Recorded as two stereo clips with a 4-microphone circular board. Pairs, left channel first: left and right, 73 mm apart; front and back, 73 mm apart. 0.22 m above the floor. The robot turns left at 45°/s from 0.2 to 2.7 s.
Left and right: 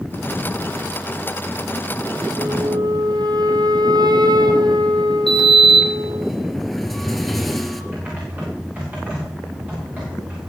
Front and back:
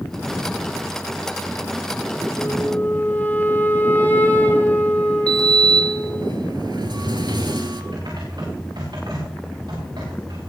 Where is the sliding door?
Straight behind, 1.9 m.